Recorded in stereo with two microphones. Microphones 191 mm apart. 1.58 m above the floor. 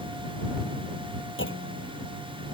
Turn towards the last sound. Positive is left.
turn(degrees=80)